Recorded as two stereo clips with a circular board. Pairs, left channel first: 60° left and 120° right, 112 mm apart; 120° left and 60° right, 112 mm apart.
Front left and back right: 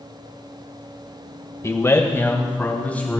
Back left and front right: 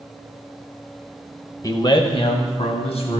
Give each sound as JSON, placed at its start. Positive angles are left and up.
{"t": 1.6, "sound": "a man speaking", "azimuth_deg": 100, "distance_m": 1.0}